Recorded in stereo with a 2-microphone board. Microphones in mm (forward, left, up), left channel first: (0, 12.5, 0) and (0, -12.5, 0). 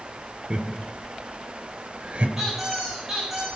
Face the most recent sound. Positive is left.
turn(degrees=-10)  # may be behind; listen again after turning